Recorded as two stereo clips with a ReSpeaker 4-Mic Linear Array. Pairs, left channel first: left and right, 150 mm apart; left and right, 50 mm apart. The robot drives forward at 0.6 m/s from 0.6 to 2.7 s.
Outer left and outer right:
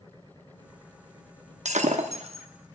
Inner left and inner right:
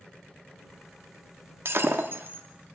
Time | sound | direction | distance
1.6 | breaking glass | 50° right (ahead or behind) | 0.6 m